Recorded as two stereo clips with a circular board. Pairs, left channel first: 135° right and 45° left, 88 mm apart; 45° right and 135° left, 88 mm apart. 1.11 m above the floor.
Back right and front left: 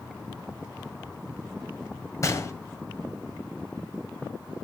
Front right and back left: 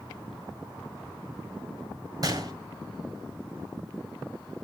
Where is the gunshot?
175° left, 2.0 m.